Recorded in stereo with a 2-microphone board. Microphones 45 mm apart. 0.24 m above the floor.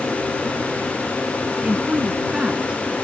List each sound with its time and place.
1.6 s a woman speaking: 20° right (ahead or behind)